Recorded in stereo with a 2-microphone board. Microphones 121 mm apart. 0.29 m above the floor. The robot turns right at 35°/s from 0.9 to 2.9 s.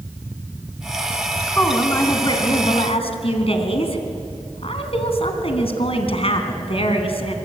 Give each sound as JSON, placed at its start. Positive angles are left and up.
{"t": 1.5, "sound": "a woman speaking", "azimuth_deg": 10, "distance_m": 3.0}